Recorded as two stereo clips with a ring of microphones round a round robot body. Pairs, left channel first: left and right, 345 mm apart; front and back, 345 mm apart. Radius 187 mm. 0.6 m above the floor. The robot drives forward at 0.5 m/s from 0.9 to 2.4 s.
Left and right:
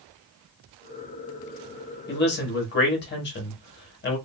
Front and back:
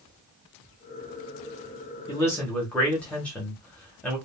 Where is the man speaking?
65° left, 1.2 m; by 4.2 s 80° left, 1.1 m.